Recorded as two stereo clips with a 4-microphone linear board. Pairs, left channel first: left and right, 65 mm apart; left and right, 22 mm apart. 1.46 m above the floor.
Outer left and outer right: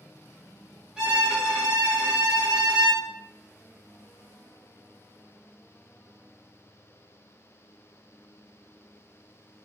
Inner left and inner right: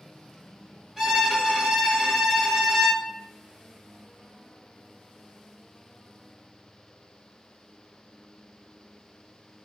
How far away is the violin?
About 2 m.